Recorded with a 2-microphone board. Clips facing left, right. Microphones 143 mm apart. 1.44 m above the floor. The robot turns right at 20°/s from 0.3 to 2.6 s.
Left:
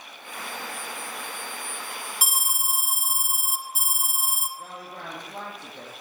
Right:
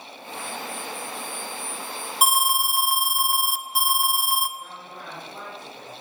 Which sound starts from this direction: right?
An alarm, at 2.2 s.